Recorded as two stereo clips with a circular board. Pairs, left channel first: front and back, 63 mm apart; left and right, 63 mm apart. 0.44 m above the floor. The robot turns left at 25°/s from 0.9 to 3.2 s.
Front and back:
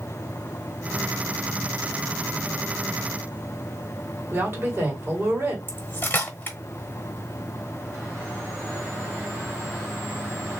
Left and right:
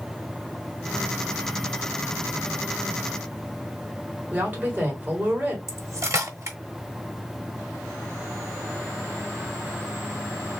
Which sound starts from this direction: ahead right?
Cutlery clinking, at 5.7 s.